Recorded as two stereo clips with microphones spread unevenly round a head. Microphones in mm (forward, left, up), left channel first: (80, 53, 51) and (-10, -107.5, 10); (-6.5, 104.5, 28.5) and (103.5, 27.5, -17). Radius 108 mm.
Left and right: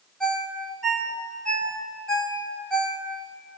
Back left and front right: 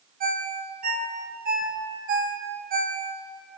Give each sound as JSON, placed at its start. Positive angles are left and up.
{"t": 0.2, "sound": "a ringtone", "azimuth_deg": -25, "distance_m": 4.5}